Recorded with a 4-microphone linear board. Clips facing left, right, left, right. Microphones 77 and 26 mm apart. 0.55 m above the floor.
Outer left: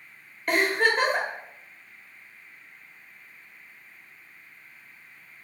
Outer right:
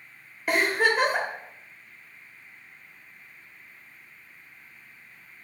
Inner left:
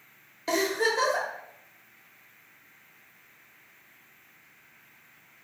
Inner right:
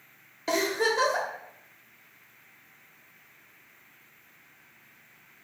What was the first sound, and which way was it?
A giggle, 5° right (ahead or behind).